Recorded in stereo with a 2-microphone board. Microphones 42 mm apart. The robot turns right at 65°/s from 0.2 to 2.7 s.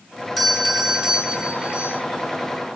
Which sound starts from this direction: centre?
A doorbell, at 0.4 s.